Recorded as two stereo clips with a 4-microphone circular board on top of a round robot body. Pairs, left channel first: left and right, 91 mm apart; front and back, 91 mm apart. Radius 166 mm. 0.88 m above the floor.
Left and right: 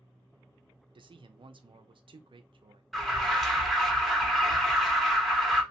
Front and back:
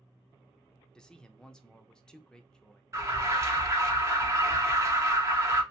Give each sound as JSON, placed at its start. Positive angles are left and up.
{"t": 0.9, "sound": "a man speaking", "azimuth_deg": -80, "distance_m": 0.7}
{"t": 2.9, "sound": "an alarm", "azimuth_deg": 180, "distance_m": 1.1}